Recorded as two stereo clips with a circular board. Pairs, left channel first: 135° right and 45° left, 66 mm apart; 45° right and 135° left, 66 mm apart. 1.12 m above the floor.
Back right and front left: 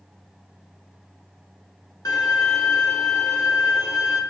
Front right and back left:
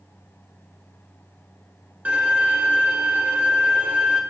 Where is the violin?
160° right, 1.1 m.